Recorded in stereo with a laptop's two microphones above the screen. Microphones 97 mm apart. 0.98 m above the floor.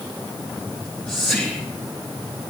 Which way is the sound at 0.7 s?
15° left (ahead or behind).